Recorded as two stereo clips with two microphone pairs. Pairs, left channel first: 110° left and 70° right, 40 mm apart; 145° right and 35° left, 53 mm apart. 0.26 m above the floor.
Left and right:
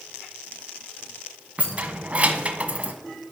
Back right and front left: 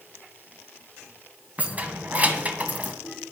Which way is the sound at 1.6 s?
20° right.